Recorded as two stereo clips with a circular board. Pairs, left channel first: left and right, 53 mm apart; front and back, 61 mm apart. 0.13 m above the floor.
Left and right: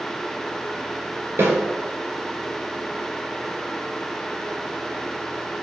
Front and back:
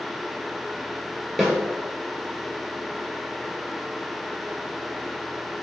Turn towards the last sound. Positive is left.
turn(degrees=-90)